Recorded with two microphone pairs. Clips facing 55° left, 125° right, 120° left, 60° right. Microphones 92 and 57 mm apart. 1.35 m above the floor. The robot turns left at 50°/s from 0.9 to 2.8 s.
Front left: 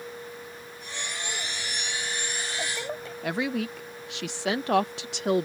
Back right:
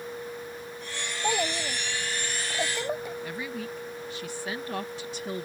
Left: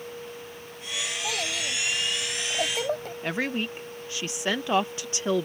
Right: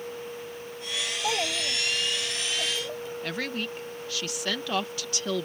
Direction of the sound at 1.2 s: 125° right.